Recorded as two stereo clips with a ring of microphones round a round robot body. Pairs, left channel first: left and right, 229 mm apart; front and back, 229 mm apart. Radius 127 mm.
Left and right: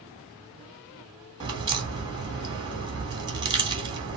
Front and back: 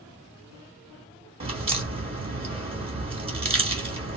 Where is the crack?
145° right, 1.2 m.